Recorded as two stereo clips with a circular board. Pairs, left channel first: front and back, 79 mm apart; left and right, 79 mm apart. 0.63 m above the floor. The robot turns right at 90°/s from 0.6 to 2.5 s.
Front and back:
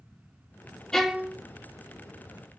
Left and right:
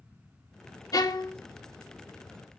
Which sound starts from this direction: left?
A violin, at 0.9 s.